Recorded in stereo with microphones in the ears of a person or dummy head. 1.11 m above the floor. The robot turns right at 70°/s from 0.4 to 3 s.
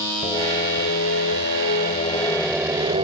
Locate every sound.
0.2 s singing: 30° left; by 3.0 s 150° right